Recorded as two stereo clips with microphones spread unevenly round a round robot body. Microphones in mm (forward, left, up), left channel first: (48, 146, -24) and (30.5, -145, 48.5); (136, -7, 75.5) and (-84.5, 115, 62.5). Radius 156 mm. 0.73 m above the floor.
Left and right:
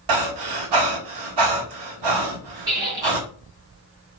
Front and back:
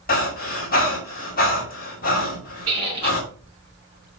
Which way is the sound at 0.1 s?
85° right.